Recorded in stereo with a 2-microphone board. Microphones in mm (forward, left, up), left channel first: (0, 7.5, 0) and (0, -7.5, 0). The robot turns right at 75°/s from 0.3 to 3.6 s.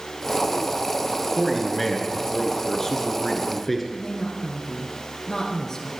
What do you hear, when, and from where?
1.4 s a man speaking: 5° right, 1.5 m; by 3.8 s 160° left, 1.5 m
3.9 s a woman speaking: 40° left (ahead or behind), 1.6 m